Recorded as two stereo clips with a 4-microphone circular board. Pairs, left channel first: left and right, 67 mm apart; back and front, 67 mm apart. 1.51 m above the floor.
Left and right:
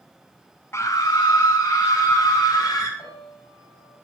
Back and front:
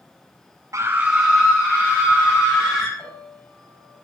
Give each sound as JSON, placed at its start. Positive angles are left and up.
{"t": 0.7, "sound": "a scream", "azimuth_deg": 40, "distance_m": 0.5}
{"t": 3.0, "sound": "a piano", "azimuth_deg": 115, "distance_m": 5.0}